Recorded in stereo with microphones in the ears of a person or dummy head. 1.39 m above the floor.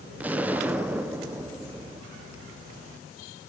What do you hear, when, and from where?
0.2 s an explosion: 5° right (ahead or behind), 0.8 m